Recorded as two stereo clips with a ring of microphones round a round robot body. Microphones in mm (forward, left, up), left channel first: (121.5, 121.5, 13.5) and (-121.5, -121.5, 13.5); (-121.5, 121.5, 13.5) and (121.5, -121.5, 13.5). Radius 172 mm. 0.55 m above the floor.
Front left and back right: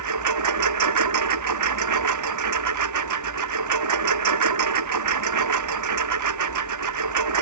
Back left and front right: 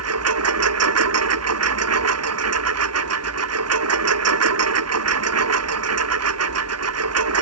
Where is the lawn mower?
95° right.